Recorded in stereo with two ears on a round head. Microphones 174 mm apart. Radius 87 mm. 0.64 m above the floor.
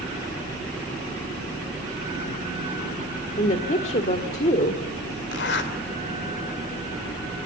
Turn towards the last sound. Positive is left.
turn(degrees=60)  # may be behind; listen again after turning